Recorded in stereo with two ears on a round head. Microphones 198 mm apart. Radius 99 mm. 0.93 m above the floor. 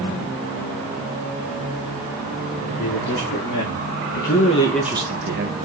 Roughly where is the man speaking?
Left.